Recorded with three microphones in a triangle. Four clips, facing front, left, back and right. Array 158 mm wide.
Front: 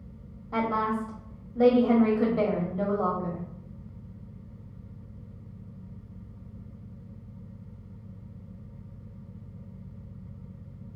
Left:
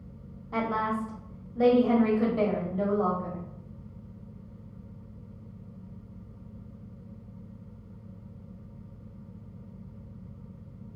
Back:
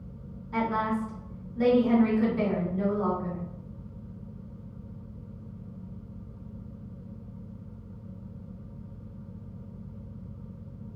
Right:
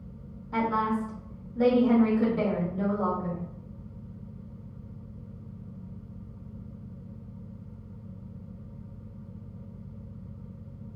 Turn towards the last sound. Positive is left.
turn(degrees=30)